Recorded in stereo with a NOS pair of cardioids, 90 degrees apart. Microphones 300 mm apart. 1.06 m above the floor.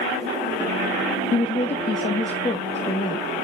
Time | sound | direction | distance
1.3 | a woman speaking | 20° left | 0.8 m